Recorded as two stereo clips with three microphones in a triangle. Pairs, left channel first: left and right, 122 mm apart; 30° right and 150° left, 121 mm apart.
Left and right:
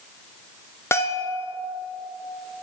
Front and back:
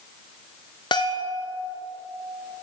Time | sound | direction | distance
0.9 | a bell | 20° left | 1.1 m